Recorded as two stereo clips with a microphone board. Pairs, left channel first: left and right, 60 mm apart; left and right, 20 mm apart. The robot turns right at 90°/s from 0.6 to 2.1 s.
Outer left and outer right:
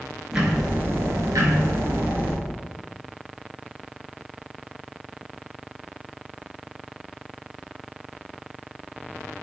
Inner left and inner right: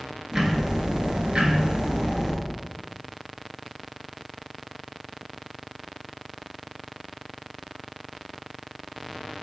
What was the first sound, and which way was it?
Ticking, 165° right.